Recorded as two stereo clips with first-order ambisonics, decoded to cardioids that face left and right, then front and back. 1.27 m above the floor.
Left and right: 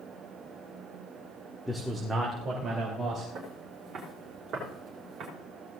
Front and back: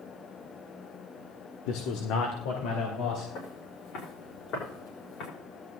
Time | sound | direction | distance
1.7 | a man speaking | straight ahead | 1.0 m
3.4 | footsteps | 25° right | 5.5 m